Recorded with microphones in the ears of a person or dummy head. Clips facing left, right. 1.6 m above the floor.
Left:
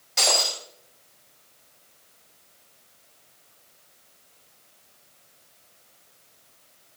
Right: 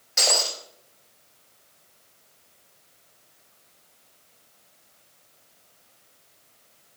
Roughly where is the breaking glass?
Centre.